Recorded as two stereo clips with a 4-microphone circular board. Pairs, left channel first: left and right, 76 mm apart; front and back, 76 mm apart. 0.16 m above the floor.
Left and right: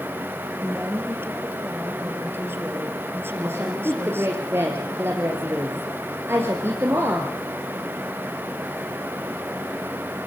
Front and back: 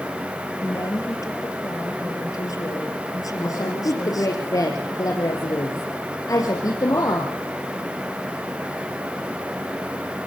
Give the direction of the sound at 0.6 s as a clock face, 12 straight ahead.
1 o'clock.